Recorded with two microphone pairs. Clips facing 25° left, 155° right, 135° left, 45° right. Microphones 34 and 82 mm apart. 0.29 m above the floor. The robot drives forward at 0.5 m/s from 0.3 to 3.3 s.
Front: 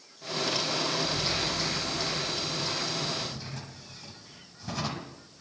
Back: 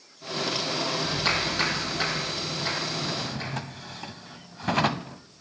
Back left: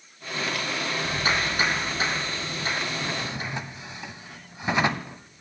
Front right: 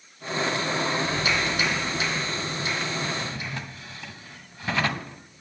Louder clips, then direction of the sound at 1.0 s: Back 4 dB, front right 1 dB; 175° right.